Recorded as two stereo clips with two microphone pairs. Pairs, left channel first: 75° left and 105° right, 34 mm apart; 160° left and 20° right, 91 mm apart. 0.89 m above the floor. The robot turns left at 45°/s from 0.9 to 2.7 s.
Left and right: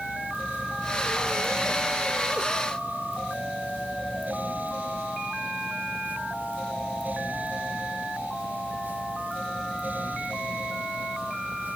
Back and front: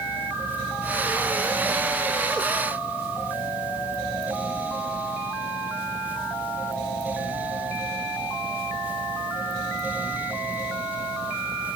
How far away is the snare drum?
No snare drum in this recording.